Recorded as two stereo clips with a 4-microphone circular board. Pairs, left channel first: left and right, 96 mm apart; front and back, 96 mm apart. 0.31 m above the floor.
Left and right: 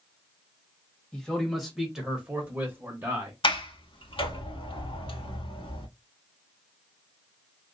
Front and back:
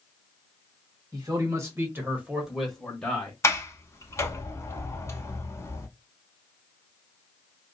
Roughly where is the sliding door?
Ahead left.